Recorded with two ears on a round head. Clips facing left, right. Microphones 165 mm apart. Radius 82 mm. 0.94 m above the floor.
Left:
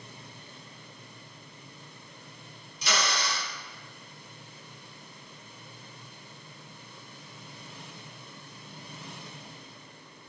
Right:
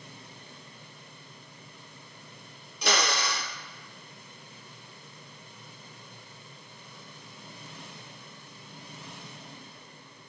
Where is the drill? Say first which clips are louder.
Right 3 dB; 50° right (ahead or behind), 2 m.